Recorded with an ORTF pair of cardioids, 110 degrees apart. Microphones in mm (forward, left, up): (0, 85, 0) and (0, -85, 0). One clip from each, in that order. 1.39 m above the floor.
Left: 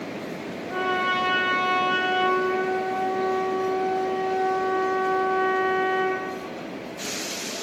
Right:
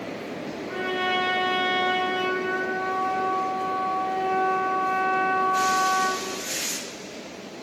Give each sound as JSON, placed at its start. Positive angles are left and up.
{"t": 0.7, "sound": "a trumpet", "azimuth_deg": -50, "distance_m": 0.9}